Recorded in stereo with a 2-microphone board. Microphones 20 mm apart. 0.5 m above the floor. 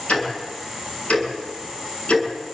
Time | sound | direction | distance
0.1 | ticking | 75° left (ahead or behind) | 7.5 m